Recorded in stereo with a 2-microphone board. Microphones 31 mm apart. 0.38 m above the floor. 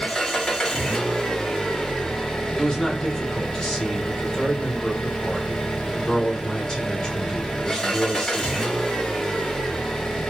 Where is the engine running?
20° left (ahead or behind), 0.8 m.